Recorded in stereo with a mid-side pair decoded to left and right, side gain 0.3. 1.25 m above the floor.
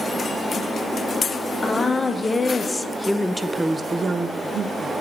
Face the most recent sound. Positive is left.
turn(degrees=-75)